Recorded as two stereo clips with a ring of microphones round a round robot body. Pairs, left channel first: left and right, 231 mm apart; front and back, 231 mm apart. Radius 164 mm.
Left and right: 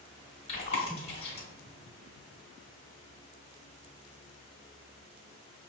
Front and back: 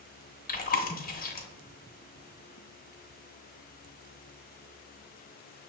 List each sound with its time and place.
0.5 s chewing: 30° left, 0.9 m